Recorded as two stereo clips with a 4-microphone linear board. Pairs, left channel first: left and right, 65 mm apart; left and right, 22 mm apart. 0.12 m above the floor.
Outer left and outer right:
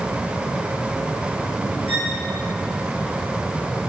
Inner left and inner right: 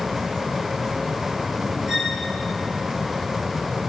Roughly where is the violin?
Right.